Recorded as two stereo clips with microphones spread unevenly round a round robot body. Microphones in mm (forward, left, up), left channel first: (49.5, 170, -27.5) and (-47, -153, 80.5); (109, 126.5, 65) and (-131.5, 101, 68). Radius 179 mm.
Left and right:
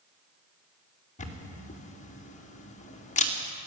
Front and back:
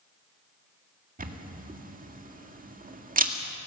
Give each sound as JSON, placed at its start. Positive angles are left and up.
{"t": 1.2, "sound": "a camera shutter", "azimuth_deg": 135, "distance_m": 2.0}